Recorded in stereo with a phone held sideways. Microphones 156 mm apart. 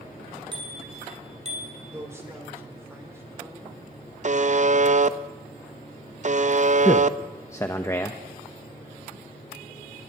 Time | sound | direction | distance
0.5 | a bicycle bell | 30° right (ahead or behind) | 4 m
1.9 | a man speaking | 15° right (ahead or behind) | 4 m
4.2 | a buzzer | 50° right (ahead or behind) | 0.6 m
6.8 | a man speaking | 20° left (ahead or behind) | 1.0 m